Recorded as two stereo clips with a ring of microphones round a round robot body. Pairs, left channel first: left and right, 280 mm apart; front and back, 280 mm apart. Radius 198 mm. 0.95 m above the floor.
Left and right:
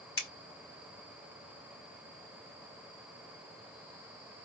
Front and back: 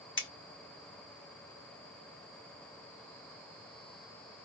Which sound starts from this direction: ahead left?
Scissors, at 0.2 s.